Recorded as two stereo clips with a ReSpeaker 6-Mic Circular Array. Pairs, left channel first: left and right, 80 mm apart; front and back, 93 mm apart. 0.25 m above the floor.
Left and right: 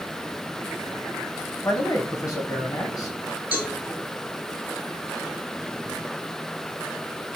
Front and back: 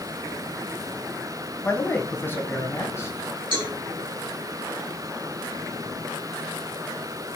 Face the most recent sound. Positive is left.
turn(degrees=-160)